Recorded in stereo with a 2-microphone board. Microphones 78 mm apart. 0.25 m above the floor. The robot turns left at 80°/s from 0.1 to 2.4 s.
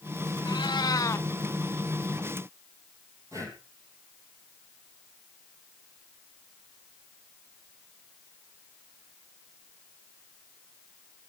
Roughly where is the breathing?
Right.